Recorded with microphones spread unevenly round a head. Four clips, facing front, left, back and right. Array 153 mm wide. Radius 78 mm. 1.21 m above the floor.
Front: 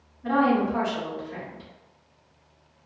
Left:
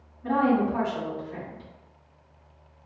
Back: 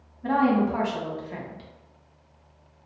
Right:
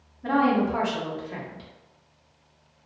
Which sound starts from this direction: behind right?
A woman speaking, at 0.2 s.